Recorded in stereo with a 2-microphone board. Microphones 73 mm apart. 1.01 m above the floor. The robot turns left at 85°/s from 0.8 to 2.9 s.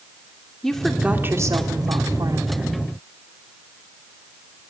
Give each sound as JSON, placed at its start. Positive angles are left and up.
{"t": 0.6, "sound": "a woman speaking", "azimuth_deg": 5, "distance_m": 2.5}